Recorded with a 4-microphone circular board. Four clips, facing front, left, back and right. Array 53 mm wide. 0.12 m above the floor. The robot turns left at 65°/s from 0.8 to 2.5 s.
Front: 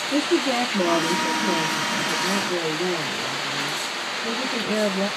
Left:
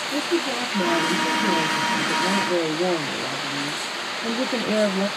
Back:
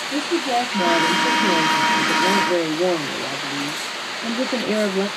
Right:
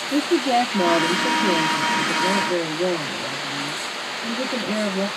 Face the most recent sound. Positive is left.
turn(degrees=165)